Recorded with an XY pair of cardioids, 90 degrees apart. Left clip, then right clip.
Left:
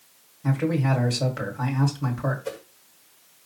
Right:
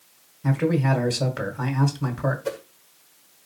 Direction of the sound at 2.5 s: 50° right.